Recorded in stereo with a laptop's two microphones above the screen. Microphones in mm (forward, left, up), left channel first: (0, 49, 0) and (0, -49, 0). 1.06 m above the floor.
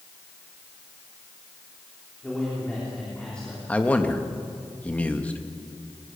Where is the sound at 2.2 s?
10° left (ahead or behind), 3.5 m.